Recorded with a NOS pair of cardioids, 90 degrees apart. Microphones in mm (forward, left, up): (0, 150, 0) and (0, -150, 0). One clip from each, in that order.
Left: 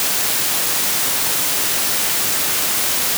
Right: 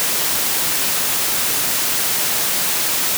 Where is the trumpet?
I don't hear a trumpet.